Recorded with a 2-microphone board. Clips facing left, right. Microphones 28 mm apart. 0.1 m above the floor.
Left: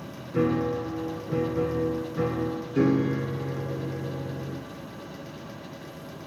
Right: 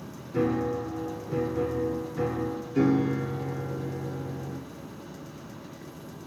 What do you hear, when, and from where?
0.3 s a piano: 5° left (ahead or behind), 0.6 m